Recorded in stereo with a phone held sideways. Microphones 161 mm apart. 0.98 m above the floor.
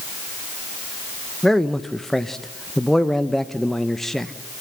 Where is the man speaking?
5° left (ahead or behind), 1.0 m.